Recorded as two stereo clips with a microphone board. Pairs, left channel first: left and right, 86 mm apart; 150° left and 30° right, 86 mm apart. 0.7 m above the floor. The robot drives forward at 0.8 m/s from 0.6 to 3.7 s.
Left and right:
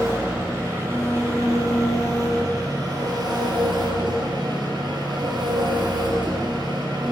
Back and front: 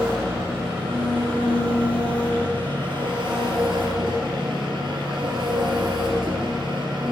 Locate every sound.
0.0 s an engine running: 30° right, 5 m; by 7.1 s 55° right, 3.5 m